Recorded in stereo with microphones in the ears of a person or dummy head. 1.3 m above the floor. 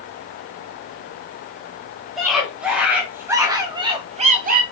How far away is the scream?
About 3 m.